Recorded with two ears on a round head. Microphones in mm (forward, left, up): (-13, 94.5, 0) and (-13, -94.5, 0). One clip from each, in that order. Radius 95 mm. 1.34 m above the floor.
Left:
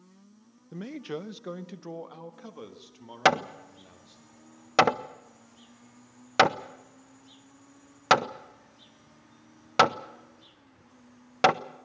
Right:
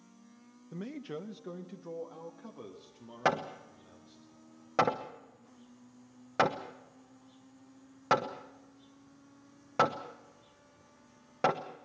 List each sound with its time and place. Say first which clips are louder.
0.7 s a man speaking: left 5 dB; 5° left (ahead or behind), 0.7 m; by 4.2 s 85° left, 3.5 m
3.2 s hammering: left 7 dB; 70° left (ahead or behind), 0.8 m